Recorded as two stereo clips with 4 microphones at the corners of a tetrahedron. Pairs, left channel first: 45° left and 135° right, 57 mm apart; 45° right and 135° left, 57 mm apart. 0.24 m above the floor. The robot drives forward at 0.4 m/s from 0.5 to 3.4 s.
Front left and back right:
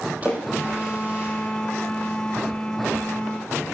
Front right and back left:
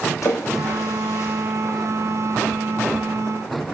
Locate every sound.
0.2 s a splash: 70° right, 6 m; by 3.8 s 80° right, 6 m